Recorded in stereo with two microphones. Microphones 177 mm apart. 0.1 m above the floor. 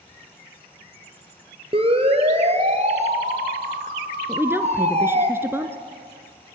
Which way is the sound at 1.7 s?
35° right (ahead or behind).